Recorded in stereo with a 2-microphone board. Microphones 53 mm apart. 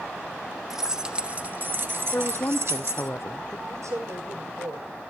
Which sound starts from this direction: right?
A woman speaking, at 3.7 s.